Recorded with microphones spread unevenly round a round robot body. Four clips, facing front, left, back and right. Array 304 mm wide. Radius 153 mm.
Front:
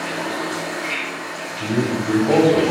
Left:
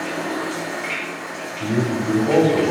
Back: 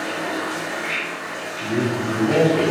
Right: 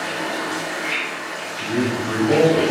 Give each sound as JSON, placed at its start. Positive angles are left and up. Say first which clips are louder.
{"t": 0.0, "sound": "running water", "louder": "left 1 dB, even", "azimuth_deg": 100, "distance_m": 3.0}
{"t": 1.6, "sound": "a man speaking", "louder": "left 1 dB, front 1 dB", "azimuth_deg": 30, "distance_m": 1.9}